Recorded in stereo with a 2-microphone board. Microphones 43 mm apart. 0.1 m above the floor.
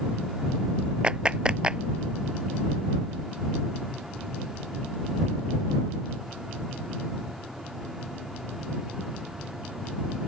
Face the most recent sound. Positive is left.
turn(degrees=-20)  # may be behind; listen again after turning